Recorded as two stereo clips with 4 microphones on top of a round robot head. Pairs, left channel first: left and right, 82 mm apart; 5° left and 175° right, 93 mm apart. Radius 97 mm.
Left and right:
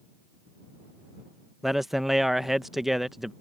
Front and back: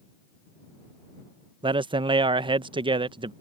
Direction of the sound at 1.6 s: 175° right.